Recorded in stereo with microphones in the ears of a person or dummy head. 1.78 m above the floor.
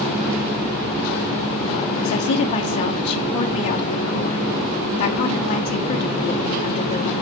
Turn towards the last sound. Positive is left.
turn(degrees=40)  # may be behind; listen again after turning